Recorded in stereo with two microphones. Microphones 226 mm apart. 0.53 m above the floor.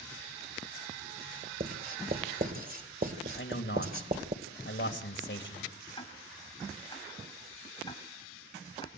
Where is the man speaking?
55° left (ahead or behind), 3.5 m.